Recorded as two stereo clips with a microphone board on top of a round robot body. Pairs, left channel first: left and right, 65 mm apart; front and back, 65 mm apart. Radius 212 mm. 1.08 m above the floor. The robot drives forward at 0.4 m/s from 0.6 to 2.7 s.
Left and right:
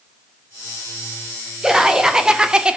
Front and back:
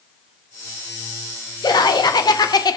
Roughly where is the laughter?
Ahead.